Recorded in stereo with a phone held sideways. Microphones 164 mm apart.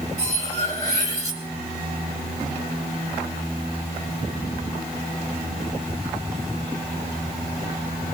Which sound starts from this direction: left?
Cutlery clinking, at 0.2 s.